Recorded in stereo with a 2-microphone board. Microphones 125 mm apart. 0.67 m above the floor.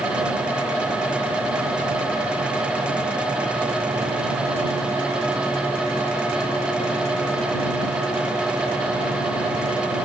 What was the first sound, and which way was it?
Only background noise.